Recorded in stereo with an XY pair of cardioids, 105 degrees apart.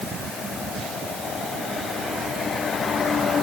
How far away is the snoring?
No snoring in this recording.